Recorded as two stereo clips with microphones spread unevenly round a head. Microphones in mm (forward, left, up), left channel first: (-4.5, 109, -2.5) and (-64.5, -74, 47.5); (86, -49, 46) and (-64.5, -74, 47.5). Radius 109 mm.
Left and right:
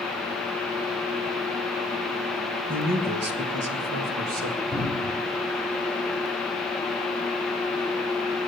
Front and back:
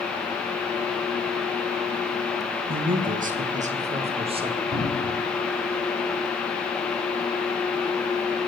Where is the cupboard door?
175° right, 4 m.